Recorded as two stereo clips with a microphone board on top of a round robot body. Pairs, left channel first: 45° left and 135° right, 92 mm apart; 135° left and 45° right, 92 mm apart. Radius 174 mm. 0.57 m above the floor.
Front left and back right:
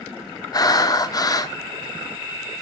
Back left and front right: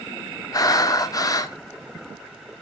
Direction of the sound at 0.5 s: 90° left.